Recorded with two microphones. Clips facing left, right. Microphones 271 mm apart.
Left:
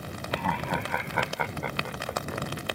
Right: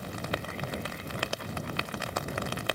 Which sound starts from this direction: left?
Laughter, at 0.3 s.